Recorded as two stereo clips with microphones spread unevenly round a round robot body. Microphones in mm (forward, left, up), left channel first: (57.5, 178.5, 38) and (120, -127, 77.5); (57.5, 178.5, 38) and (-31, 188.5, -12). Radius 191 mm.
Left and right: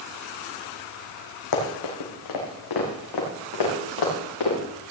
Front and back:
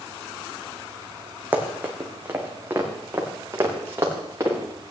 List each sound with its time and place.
1.5 s running footsteps: 90° left, 2.5 m; by 4.6 s 110° left, 4 m